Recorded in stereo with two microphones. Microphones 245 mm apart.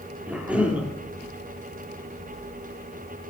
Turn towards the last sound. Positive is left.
turn(degrees=-5)  # may be behind; listen again after turning